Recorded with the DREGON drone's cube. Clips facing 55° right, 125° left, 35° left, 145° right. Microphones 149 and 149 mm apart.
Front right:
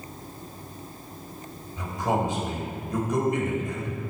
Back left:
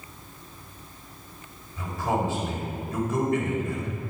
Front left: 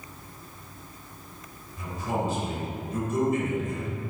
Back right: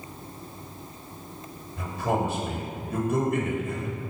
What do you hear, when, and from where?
1.8 s a man speaking: 130° right, 3 m